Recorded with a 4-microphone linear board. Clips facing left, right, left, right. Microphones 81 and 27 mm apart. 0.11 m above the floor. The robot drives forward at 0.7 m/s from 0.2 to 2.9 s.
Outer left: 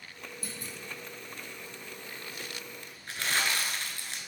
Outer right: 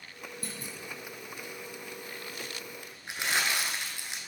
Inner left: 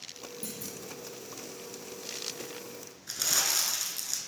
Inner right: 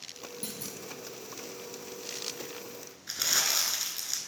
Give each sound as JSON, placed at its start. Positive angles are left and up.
{"t": 0.4, "sound": "a clunk", "side_deg": -50, "distance_m": 1.3}
{"t": 3.1, "sound": "crumpling", "side_deg": -20, "distance_m": 1.0}